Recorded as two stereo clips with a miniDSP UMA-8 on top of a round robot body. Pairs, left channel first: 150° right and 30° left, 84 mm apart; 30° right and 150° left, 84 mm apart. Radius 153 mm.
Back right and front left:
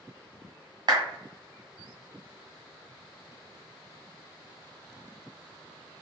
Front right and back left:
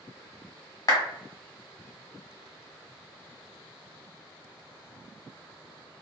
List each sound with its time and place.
0.9 s a clap: 5° left, 1.4 m